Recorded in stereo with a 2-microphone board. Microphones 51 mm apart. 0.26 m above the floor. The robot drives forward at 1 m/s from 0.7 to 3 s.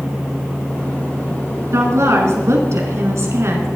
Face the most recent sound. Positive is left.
turn(degrees=-65)  # may be behind; listen again after turning